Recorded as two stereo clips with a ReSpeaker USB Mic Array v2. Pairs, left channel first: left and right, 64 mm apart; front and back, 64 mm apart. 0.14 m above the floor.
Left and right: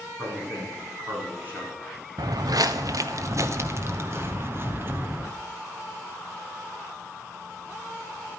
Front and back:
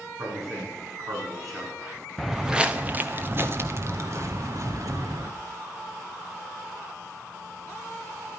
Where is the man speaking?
145° right, 8 m.